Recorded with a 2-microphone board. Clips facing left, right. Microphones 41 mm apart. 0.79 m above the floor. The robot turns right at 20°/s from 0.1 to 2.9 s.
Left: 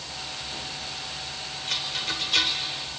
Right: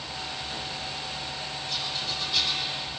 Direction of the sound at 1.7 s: 75° left (ahead or behind).